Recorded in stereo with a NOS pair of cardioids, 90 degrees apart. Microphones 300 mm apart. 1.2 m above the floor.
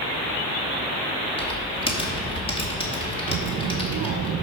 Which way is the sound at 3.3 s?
65° right.